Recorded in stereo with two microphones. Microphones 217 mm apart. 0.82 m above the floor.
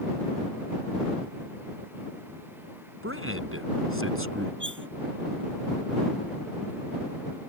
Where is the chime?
No chime in this recording.